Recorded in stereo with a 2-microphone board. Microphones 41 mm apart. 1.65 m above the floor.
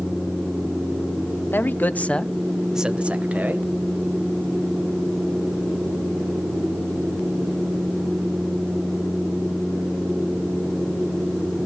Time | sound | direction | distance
1.5 | a man speaking | 55° left (ahead or behind) | 1.2 m